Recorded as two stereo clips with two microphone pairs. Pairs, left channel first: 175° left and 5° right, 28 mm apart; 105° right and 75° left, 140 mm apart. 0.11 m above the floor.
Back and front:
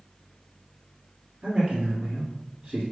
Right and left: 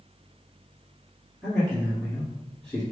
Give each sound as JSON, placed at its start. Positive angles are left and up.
{"t": 1.4, "sound": "a man speaking", "azimuth_deg": -25, "distance_m": 1.4}